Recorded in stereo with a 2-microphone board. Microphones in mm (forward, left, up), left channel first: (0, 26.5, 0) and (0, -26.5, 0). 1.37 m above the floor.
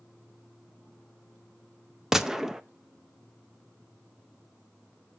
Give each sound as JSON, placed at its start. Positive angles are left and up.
{"t": 2.1, "sound": "a gunshot", "side_deg": -10, "distance_m": 0.5}